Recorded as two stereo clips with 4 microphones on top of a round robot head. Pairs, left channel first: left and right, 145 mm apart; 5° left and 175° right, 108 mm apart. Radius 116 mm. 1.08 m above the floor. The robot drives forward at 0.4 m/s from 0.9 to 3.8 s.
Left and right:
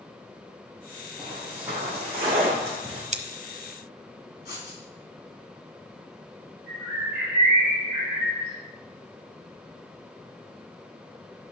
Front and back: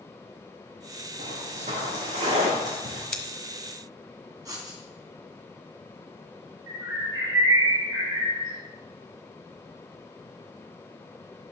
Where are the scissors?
75° right, 1.0 m.